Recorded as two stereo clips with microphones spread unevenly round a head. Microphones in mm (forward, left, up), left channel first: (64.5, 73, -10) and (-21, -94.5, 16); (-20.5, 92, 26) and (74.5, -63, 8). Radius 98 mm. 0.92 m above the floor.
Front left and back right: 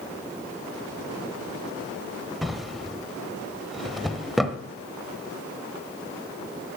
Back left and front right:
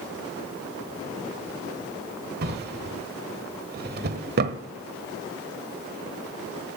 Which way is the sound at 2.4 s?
35° right.